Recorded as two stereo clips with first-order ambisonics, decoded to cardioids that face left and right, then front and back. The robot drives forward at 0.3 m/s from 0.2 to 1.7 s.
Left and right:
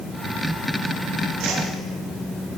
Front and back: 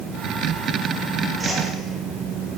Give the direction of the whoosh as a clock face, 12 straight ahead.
3 o'clock.